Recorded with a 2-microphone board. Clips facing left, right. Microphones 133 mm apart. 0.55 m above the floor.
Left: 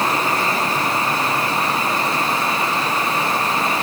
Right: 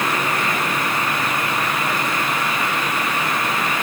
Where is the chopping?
I don't hear chopping.